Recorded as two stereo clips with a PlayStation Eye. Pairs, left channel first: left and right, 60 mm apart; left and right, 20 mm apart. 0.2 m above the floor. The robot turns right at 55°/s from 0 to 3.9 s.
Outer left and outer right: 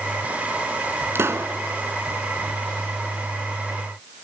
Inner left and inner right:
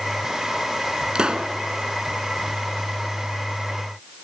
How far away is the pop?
About 1.0 m.